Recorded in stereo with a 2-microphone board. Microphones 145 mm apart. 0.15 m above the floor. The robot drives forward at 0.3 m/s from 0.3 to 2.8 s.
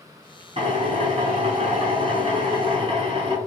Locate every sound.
0.6 s a drill: 45° right (ahead or behind), 0.8 m; by 3.4 s 40° right (ahead or behind), 0.9 m